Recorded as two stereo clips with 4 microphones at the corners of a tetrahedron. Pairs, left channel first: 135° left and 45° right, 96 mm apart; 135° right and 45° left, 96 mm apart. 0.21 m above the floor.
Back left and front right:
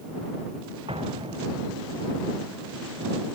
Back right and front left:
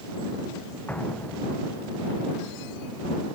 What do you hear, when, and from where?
0.9 s an explosion: 60° right